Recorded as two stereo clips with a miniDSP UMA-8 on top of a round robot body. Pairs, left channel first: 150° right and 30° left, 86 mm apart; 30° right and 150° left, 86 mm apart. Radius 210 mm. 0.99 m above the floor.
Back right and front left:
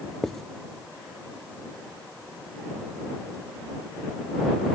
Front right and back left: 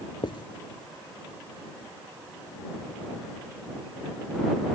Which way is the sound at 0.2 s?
65° right.